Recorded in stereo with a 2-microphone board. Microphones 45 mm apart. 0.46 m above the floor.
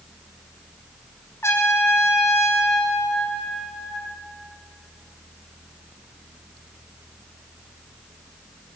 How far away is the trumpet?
About 4.5 m.